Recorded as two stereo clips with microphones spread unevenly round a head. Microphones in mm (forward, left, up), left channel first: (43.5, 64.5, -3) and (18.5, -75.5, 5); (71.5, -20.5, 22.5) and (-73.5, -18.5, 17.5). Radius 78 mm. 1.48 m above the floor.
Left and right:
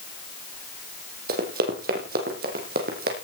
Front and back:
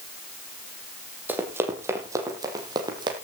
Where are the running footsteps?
105° right, 3.5 m; by 3.1 s 120° right, 4 m.